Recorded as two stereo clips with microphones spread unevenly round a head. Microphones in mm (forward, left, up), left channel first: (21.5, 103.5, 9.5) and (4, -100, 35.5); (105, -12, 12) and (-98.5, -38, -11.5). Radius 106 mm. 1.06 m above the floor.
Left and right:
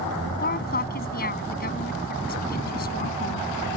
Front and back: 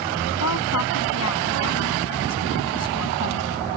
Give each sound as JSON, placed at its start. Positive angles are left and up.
{"t": 0.4, "sound": "a woman speaking", "azimuth_deg": 35}